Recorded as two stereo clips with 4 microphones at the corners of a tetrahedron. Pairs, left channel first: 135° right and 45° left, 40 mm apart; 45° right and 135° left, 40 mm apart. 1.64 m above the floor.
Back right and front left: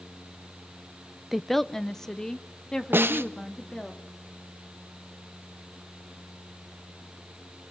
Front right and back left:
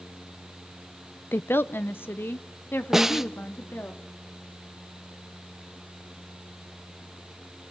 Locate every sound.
1.3 s a woman speaking: 40° right, 0.7 m; by 3.9 s 65° right, 3.5 m
2.9 s a snare drum: 55° left, 0.9 m